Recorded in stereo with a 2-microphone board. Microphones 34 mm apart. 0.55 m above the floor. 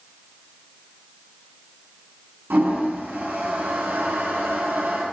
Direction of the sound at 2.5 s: 75° right (ahead or behind).